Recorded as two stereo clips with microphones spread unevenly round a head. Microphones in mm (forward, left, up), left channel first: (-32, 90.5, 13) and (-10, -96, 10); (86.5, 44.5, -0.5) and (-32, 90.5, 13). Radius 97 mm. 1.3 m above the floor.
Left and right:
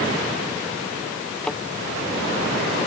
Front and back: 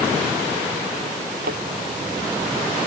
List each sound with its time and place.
1.4 s a thud: straight behind